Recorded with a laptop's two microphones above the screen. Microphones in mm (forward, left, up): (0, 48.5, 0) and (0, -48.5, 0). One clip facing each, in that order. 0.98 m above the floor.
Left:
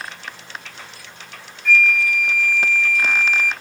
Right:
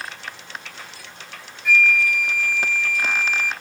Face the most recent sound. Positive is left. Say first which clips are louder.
# left 1 dB
turn(degrees=-10)  # may be behind; listen again after turning